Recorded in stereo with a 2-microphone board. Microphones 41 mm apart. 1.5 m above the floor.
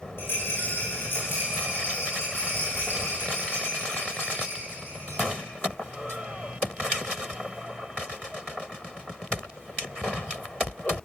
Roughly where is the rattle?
Left.